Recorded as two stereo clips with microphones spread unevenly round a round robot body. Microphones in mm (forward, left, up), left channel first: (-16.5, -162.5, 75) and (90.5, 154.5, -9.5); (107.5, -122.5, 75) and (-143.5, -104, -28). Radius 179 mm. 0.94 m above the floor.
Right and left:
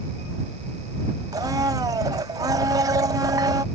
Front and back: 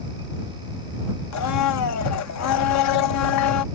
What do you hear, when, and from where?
1.3 s a blender: 10° right